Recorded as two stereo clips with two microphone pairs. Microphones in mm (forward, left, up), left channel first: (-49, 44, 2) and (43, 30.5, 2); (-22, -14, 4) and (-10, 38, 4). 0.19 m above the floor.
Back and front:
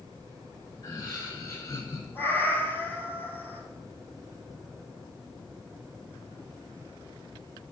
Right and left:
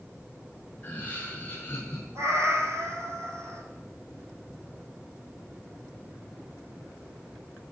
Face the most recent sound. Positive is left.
turn(degrees=105)